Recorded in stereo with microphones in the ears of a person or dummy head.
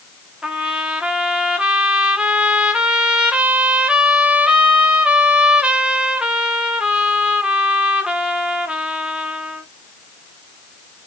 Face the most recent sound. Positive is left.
turn(degrees=0)  # may be behind; listen again after turning